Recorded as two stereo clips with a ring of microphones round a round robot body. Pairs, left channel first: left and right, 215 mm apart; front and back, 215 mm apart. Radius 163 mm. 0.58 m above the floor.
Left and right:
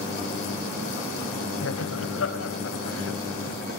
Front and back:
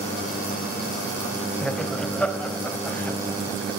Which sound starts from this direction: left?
Laughter, at 1.6 s.